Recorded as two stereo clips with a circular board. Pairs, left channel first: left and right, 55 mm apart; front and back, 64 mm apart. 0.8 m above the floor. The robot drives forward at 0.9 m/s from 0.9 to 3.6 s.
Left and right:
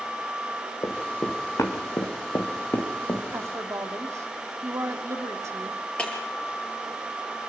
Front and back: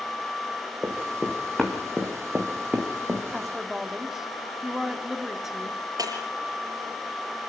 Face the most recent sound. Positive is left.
turn(degrees=160)